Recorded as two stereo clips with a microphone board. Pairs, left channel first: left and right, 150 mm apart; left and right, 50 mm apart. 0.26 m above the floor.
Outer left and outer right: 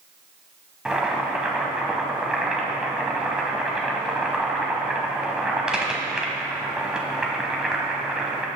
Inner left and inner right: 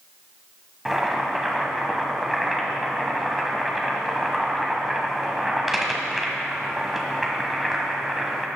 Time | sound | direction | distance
0.8 | boiling | 5° right (ahead or behind) | 1.3 m